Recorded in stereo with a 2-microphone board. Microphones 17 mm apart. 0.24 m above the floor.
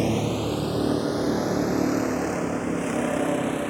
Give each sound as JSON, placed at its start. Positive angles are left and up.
{"t": 0.0, "sound": "a vehicle", "side_deg": -10}